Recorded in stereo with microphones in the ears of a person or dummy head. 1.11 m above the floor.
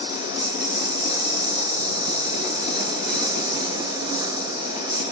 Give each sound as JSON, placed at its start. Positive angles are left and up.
{"t": 0.0, "sound": "a lawn mower", "side_deg": -20}